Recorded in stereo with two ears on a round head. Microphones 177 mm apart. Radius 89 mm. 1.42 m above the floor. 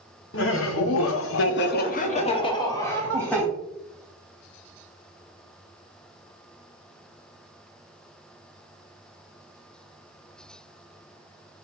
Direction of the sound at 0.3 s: 65° left (ahead or behind).